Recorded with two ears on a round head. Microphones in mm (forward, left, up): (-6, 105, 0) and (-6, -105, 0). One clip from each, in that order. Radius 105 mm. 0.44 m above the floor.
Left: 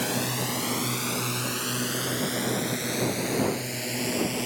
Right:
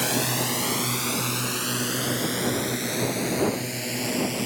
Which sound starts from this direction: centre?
A drone, at 0.0 s.